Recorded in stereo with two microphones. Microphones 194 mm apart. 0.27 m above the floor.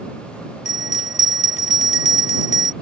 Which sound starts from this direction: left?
A bell, at 0.7 s.